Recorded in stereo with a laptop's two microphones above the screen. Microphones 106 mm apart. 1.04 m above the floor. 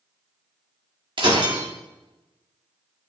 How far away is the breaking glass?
About 1.5 m.